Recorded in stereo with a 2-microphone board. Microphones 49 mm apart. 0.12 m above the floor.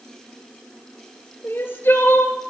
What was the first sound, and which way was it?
Crying, 45° left (ahead or behind).